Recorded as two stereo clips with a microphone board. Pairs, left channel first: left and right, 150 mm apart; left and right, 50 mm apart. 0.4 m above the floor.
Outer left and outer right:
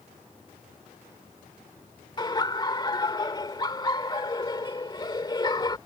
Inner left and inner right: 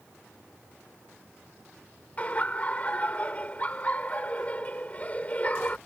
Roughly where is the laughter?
Left.